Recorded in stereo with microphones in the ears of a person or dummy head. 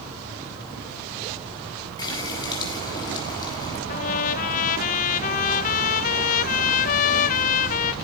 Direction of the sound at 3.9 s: 45° left (ahead or behind).